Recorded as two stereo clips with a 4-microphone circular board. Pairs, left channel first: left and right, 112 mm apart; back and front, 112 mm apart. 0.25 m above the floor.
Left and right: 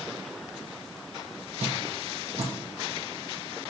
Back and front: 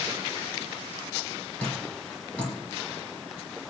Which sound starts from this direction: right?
Dripping, at 1.6 s.